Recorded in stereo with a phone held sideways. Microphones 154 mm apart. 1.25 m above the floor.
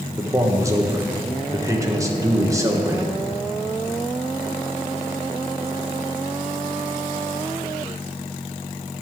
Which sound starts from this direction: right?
A man speaking, at 0.2 s.